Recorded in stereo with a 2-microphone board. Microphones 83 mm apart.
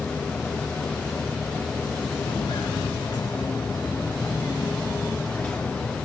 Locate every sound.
2.3 s footsteps: 70° left (ahead or behind), 2.0 m; by 6.0 s 10° left (ahead or behind), 2.5 m